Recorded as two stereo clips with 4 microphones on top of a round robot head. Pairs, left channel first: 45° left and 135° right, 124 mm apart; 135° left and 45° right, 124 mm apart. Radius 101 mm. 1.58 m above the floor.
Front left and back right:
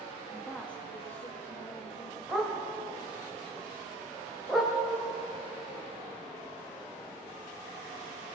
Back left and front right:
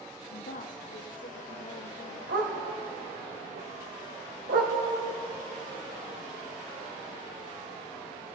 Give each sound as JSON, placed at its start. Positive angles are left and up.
{"t": 0.3, "sound": "a woman speaking", "azimuth_deg": 135, "distance_m": 0.7}
{"t": 2.3, "sound": "a dog barking", "azimuth_deg": -45, "distance_m": 2.5}